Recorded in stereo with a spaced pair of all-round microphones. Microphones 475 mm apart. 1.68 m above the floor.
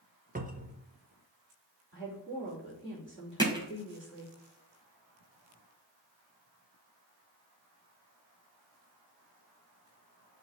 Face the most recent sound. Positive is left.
turn(degrees=-10)  # may be behind; listen again after turning